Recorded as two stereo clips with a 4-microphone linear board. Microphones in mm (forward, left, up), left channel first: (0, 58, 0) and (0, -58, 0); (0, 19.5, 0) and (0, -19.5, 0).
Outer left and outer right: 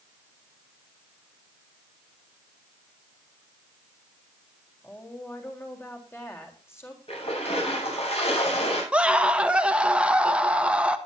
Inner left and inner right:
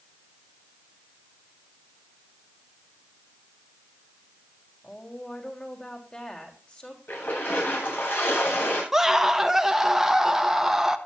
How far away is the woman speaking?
About 4 m.